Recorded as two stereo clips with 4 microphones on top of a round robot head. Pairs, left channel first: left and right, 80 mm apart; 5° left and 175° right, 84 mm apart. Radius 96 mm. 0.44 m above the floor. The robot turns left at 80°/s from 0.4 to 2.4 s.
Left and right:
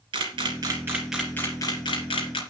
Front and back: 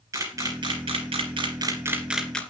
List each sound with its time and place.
0.1 s a camera shutter: 120° right, 2.0 m; by 2.4 s 80° left, 2.0 m